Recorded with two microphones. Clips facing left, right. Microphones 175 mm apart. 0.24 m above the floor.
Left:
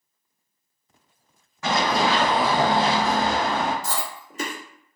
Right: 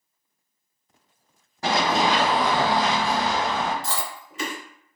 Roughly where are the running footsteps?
Right.